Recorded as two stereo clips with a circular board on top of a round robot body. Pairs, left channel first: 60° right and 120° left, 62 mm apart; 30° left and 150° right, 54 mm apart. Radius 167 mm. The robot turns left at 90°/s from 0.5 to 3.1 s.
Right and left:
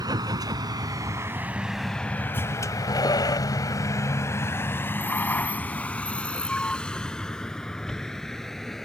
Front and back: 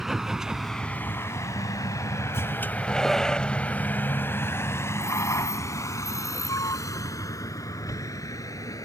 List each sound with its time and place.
0.0 s a vehicle: 125° left; by 8.8 s 25° left